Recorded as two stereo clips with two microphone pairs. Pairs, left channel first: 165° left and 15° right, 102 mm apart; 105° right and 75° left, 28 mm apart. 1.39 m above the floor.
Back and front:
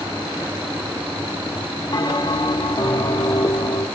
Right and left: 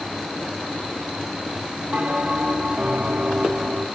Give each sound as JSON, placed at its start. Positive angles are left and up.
{"t": 1.9, "sound": "a bell", "azimuth_deg": 115, "distance_m": 3.5}